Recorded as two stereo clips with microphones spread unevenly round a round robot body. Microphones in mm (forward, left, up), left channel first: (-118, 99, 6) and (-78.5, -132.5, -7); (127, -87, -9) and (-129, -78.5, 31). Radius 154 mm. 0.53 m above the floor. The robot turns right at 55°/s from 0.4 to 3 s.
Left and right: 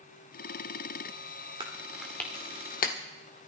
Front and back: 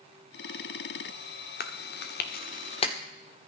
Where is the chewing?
15° right, 1.5 m; by 3.0 s 60° left, 1.5 m.